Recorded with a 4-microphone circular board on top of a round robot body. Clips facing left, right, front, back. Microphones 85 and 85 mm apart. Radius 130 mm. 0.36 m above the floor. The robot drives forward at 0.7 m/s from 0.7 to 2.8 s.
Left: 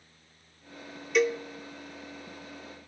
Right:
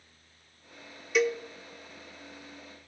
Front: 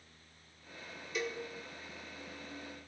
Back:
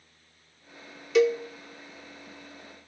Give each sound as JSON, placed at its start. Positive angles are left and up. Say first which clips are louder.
{"t": 1.1, "sound": "a cowbell", "louder": "left 1 dB, back 17 dB", "azimuth_deg": 180, "distance_m": 0.5}